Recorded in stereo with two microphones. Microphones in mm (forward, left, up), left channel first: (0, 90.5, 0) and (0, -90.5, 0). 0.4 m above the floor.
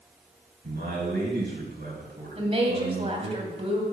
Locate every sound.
0.6 s a man speaking: 65° right (ahead or behind), 5.5 m
2.4 s a woman speaking: 35° right (ahead or behind), 3 m